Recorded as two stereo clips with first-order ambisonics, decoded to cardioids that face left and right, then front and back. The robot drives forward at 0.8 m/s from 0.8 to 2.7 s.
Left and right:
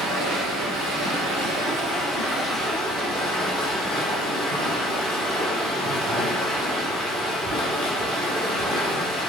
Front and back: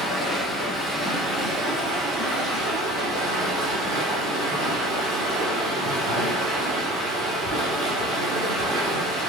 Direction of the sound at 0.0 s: 85° right.